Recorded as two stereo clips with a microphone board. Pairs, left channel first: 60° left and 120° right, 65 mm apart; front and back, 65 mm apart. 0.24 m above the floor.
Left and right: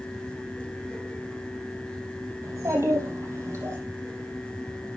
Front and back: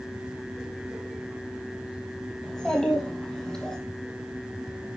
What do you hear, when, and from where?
2.4 s a child speaking: 80° right, 5 m; by 3.8 s 75° right, 6 m